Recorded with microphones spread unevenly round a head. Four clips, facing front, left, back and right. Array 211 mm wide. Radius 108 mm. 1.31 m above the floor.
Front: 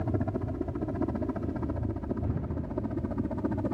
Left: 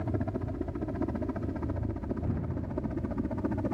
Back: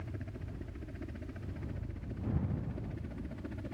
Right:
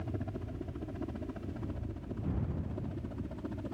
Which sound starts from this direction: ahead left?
A helicopter, at 0.0 s.